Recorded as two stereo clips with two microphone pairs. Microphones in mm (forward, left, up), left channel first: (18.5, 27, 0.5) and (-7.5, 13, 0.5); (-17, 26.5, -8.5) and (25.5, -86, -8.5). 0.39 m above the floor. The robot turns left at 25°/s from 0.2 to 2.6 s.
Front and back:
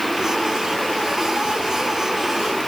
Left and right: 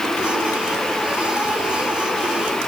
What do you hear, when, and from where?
Only background noise.